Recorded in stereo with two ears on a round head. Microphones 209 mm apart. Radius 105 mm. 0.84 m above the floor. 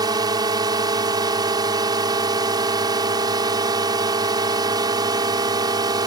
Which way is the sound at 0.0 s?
15° right (ahead or behind).